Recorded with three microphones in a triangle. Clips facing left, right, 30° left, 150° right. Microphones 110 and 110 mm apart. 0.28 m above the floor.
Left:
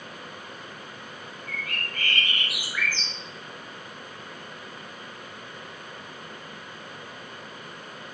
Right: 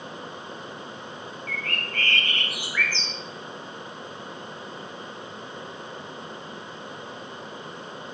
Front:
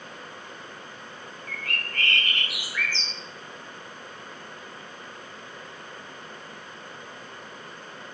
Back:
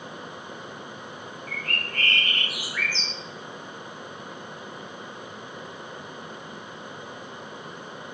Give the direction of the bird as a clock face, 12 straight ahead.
6 o'clock.